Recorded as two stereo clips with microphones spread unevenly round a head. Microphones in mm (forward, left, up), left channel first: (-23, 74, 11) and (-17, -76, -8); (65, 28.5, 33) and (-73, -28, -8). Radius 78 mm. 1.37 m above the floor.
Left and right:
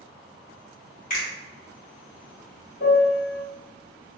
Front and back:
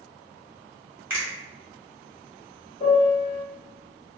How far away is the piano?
About 1.0 m.